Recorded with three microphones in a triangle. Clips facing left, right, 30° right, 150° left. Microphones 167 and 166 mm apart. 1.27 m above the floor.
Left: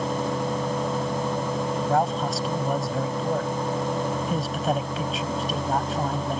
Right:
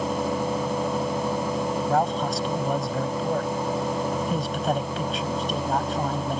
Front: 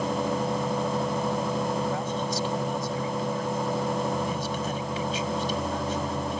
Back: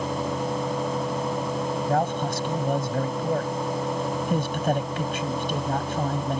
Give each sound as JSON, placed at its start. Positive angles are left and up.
{"t": 1.9, "sound": "a man speaking", "azimuth_deg": 180}